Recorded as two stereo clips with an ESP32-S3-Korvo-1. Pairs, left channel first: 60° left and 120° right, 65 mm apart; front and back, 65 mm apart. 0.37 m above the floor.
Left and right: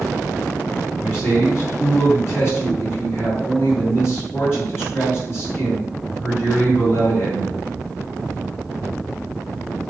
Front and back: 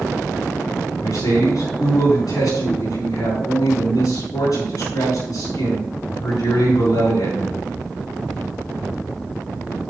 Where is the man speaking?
10° left, 4.5 m.